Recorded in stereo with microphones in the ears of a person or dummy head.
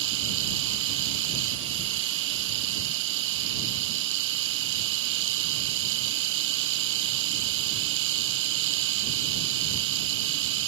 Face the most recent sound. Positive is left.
turn(degrees=-70)  # may be behind; listen again after turning